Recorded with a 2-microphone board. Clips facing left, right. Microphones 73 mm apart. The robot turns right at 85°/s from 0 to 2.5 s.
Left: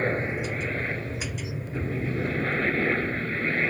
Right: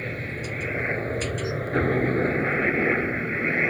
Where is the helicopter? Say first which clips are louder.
Left 5 dB; 130° left; by 3.7 s 15° right.